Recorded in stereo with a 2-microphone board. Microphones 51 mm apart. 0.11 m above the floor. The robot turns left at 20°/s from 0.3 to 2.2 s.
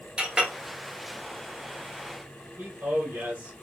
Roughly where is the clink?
Centre.